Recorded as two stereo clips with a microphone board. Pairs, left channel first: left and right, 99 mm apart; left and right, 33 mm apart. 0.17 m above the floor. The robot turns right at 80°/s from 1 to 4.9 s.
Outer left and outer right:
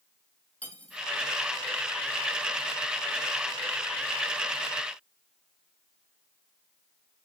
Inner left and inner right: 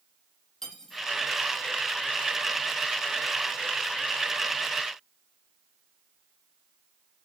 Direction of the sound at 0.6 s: 15° left (ahead or behind).